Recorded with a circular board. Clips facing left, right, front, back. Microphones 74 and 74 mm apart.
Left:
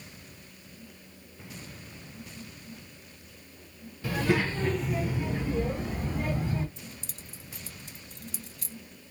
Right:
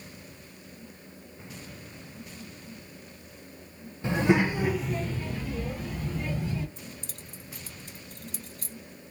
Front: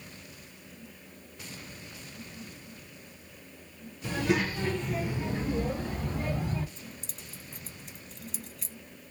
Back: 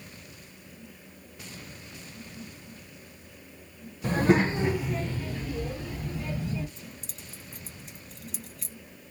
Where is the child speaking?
145° right, 0.8 m; by 6.7 s 35° left, 1.5 m.